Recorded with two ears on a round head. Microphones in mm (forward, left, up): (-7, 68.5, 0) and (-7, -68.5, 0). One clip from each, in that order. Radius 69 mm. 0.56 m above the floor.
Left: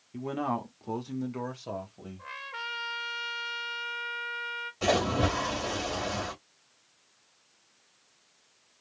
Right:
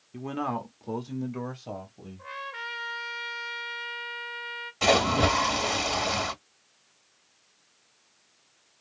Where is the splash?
45° right (ahead or behind), 2.0 m.